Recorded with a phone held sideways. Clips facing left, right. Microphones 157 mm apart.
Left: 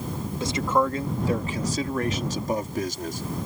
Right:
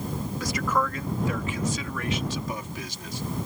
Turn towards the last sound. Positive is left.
turn(degrees=50)  # may be behind; listen again after turning